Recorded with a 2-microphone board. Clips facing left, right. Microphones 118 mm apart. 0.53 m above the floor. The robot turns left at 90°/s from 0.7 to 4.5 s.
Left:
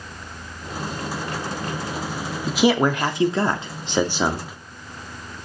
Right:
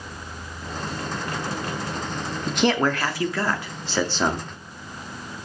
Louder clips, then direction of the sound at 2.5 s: Left 3 dB; centre (ahead or behind).